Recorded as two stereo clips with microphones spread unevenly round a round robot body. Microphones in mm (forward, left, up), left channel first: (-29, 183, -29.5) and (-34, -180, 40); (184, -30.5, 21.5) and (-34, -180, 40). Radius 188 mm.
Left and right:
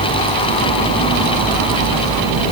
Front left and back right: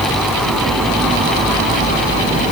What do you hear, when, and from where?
Only background noise.